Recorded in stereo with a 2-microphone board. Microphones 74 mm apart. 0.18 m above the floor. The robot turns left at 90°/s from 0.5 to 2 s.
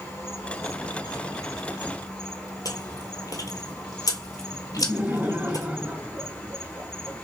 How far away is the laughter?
About 1.3 m.